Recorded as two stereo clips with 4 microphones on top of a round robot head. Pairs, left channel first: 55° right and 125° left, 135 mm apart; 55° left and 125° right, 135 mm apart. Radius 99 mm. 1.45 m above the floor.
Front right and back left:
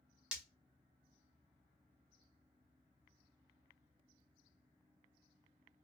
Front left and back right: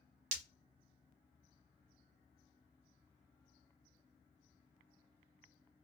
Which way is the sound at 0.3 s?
155° right.